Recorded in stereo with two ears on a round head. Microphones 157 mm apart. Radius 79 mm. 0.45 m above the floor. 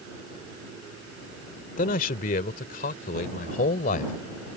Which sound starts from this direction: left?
A man speaking, at 1.8 s.